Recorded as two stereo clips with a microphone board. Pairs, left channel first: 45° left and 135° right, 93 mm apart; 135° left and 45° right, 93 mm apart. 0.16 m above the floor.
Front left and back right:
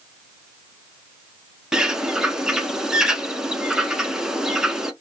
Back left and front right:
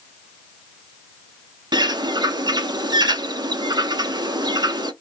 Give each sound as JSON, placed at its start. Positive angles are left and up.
{"t": 1.7, "sound": "a bird", "azimuth_deg": -55, "distance_m": 0.6}